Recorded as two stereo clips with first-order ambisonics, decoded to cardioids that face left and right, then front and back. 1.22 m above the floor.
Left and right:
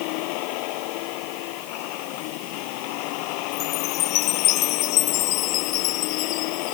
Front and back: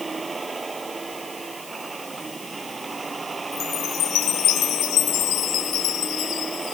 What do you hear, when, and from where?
0.0 s a vehicle: 105° left
3.5 s a chime: 50° left